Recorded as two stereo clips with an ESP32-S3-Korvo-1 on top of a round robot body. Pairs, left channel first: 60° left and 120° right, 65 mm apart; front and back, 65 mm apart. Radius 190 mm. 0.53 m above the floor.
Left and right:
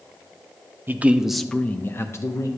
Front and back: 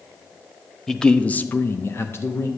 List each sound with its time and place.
0.9 s a man speaking: 80° right, 0.8 m; by 2.5 s 40° left, 1.1 m